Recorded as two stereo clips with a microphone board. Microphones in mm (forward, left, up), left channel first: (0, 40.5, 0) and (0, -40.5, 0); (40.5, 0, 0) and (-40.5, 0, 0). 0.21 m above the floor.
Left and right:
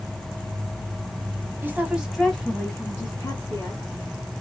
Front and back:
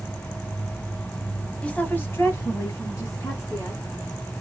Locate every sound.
1.6 s a woman speaking: 60° right, 1.1 m; by 3.8 s 45° left, 2 m